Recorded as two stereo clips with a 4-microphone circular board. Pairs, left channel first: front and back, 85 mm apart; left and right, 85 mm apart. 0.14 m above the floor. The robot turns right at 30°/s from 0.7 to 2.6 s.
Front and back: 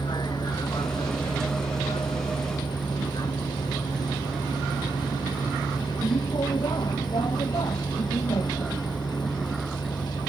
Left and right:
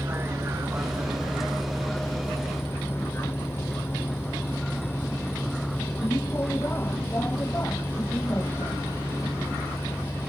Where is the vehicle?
30° right; by 10.3 s 30° left.